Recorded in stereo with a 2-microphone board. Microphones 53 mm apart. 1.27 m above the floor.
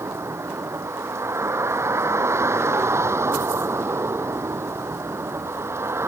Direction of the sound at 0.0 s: 55° right (ahead or behind).